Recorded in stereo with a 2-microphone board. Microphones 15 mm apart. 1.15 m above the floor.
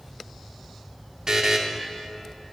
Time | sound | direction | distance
1.3 | a buzzer | 50° right (ahead or behind) | 1.0 m